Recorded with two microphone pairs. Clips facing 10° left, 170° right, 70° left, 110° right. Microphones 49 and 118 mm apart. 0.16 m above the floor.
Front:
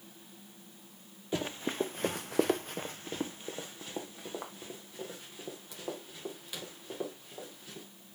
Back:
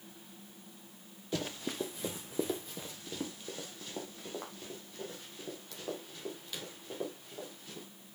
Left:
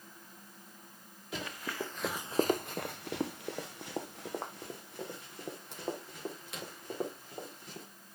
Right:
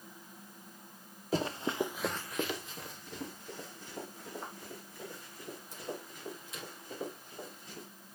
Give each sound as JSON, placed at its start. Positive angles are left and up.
{"t": 1.3, "sound": "running footsteps", "azimuth_deg": -60, "distance_m": 1.1}